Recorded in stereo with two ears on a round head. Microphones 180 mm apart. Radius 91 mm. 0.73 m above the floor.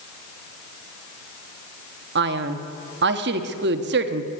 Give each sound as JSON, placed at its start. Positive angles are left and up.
{"t": 2.1, "sound": "a man speaking", "side_deg": -55, "distance_m": 1.0}